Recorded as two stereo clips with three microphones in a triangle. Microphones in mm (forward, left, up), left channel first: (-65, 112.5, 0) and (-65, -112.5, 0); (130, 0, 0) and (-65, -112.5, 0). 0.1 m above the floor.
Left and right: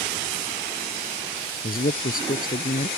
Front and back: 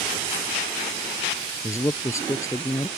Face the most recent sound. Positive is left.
turn(degrees=100)